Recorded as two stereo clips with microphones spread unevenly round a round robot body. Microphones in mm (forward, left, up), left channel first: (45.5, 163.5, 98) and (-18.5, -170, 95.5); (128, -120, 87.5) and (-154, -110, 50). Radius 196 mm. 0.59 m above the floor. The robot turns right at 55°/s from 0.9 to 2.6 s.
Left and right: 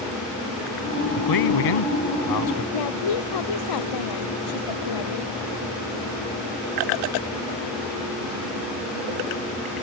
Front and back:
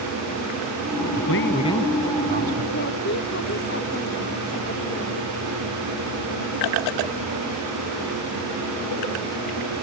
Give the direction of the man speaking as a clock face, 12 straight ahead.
10 o'clock.